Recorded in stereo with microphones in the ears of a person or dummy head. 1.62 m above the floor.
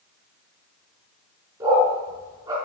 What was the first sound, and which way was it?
A dog barking, 20° right (ahead or behind).